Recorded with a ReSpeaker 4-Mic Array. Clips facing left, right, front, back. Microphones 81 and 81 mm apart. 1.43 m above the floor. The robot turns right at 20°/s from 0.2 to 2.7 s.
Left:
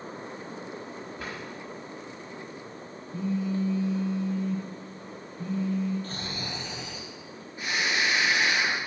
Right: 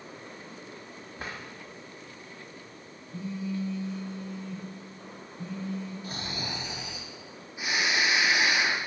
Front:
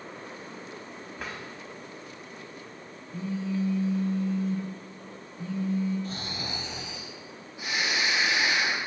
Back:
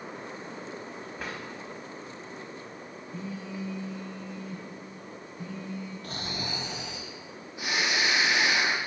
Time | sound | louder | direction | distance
1.2 | a drawer | right 1 dB, even | 90° right | 1.0 m
3.1 | a phone buzzing | left 5 dB, front 7 dB | 115° left | 1.9 m
6.0 | snoring | even, even | 170° right | 0.6 m